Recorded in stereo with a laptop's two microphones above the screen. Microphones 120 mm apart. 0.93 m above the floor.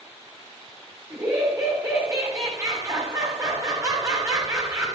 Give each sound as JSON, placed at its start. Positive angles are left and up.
{"t": 1.1, "sound": "laughter", "side_deg": -30, "distance_m": 3.0}